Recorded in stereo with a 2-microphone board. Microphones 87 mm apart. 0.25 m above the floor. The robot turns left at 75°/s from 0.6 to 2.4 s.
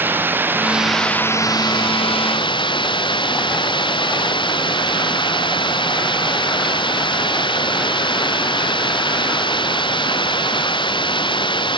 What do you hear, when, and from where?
0.0 s running water: 155° right; by 11.8 s 70° left